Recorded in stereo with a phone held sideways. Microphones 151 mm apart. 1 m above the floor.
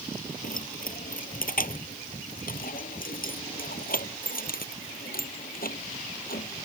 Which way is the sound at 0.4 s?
65° left (ahead or behind).